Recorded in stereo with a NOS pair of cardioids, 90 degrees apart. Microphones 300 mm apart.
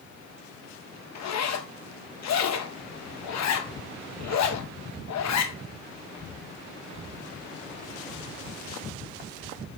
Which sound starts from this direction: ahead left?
A zipper, at 1.1 s.